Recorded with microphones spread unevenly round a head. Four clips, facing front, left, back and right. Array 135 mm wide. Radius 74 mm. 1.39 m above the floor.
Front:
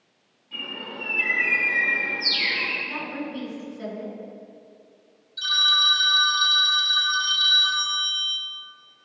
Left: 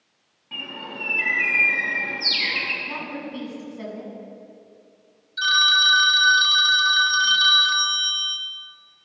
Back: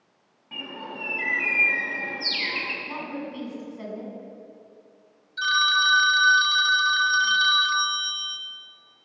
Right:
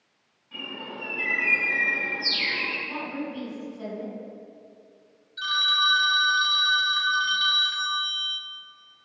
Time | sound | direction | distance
0.5 | a bird | 130° left | 6 m
2.9 | a woman speaking | 110° left | 9.5 m
5.4 | a phone ringing | 125° left | 1.2 m